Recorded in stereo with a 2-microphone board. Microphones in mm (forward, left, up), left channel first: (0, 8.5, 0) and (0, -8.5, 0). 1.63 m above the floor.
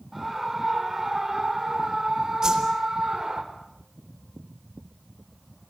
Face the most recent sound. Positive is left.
turn(degrees=-40)  # may be behind; listen again after turning